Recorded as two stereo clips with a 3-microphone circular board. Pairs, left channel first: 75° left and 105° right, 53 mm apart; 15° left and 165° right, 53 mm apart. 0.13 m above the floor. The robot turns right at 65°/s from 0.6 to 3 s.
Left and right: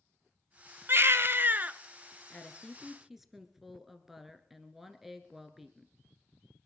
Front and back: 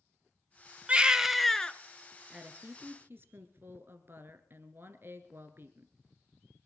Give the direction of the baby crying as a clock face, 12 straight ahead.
4 o'clock.